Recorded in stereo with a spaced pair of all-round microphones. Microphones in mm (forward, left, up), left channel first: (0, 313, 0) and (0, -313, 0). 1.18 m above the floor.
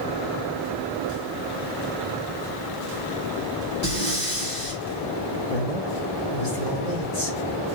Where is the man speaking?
80° left, 2 m.